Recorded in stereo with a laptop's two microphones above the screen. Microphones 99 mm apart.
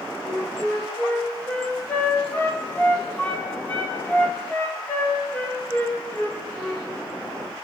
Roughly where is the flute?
Centre.